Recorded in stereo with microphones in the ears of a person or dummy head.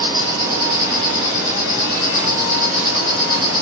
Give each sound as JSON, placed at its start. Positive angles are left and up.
{"t": 0.0, "sound": "an insect", "side_deg": -15, "distance_m": 1.7}